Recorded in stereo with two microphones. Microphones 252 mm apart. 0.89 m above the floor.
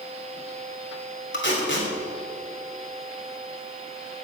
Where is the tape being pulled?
45° left (ahead or behind), 3 m.